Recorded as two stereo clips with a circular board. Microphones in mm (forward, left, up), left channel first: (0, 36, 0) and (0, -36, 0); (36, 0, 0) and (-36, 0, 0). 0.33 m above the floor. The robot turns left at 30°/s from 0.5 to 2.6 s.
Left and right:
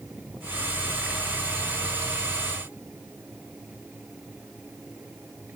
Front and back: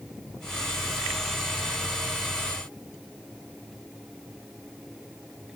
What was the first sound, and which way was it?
Only background noise.